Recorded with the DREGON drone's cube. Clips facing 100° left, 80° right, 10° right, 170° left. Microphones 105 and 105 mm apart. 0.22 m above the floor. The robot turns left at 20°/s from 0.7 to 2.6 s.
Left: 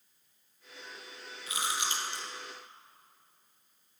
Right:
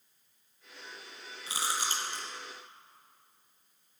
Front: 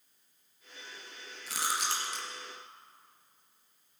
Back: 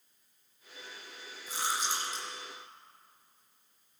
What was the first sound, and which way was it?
Chewing, 20° right.